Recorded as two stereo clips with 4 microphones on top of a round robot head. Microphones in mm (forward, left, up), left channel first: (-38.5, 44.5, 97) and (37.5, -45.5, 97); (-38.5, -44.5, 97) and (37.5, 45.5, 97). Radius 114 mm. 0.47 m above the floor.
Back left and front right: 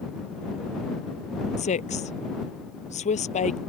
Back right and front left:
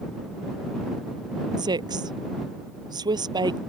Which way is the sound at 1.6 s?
105° left.